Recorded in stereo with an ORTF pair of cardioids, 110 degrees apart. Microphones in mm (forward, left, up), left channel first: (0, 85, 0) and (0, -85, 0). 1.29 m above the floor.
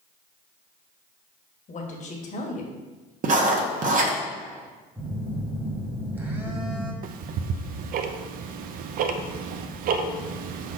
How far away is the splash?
No splash in this recording.